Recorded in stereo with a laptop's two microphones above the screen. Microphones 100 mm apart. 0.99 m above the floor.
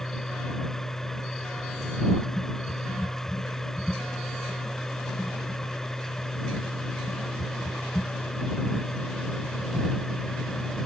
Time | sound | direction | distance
0.0 | a machine running | 5° left (ahead or behind) | ?